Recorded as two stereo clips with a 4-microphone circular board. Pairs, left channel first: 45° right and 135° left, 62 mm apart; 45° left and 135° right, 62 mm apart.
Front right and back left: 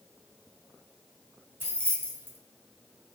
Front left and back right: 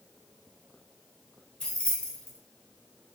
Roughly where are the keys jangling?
Left.